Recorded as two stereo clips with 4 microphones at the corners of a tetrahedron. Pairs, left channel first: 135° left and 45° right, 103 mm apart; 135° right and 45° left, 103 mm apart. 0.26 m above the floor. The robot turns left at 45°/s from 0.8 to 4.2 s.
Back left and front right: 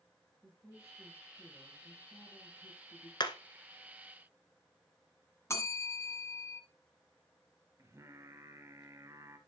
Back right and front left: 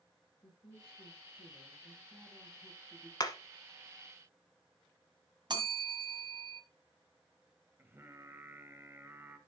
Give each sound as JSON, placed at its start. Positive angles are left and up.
{"t": 0.4, "sound": "a woman speaking", "azimuth_deg": -105, "distance_m": 6.5}
{"t": 3.2, "sound": "hammering", "azimuth_deg": 175, "distance_m": 1.1}
{"t": 5.5, "sound": "a bell", "azimuth_deg": 80, "distance_m": 1.7}
{"t": 7.8, "sound": "singing", "azimuth_deg": -10, "distance_m": 1.3}